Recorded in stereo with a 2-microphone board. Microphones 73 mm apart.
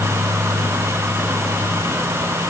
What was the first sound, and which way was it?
Only background noise.